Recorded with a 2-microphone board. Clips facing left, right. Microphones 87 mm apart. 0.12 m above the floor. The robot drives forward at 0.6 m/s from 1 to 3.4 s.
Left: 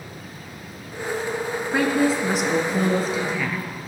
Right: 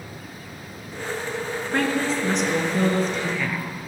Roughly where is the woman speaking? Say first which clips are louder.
Left 3 dB; centre.